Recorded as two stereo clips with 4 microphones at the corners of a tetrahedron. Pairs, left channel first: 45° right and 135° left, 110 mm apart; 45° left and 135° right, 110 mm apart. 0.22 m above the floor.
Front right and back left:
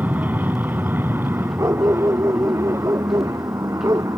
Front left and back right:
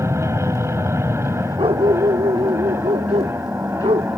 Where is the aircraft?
170° right; by 4.2 s 170° left.